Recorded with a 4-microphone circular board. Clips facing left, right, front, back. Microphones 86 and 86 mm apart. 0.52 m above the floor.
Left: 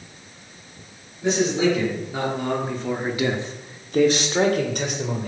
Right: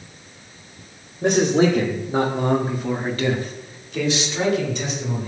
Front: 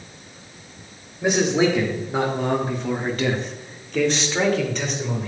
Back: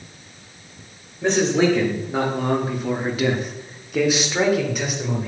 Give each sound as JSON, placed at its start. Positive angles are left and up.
{"t": 1.2, "sound": "a man speaking", "azimuth_deg": -90, "distance_m": 1.8}